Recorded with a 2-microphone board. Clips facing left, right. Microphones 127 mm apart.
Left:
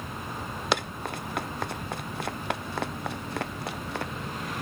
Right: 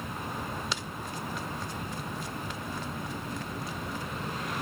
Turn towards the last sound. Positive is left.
turn(degrees=85)